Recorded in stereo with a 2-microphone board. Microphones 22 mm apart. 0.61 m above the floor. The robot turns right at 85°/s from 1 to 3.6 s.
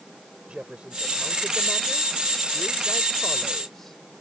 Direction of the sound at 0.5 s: 55° right.